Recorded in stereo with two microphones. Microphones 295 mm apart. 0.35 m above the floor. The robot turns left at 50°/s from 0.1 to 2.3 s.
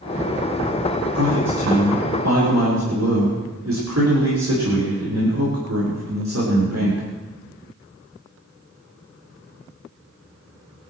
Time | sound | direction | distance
1.1 | a man speaking | 55° right | 5.5 m